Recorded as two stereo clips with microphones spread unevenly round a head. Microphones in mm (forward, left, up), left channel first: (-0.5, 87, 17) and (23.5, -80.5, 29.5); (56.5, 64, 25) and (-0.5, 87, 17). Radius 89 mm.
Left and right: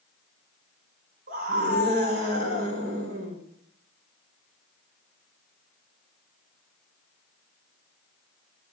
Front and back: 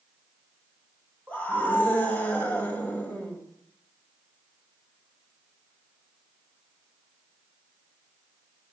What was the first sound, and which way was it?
A scream, 125° right.